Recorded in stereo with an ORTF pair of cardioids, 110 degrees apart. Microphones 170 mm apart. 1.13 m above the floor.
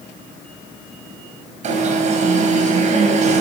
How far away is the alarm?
About 5 m.